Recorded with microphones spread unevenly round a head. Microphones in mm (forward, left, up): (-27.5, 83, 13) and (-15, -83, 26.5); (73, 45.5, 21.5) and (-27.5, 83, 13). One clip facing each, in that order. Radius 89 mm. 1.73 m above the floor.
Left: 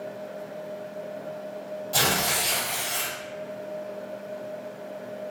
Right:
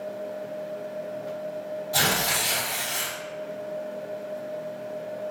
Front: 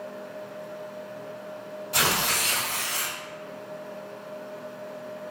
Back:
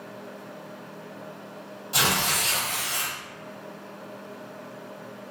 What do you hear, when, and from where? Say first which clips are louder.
1.9 s tearing paper: left 2 dB, back 1 dB; 125° left, 1.6 m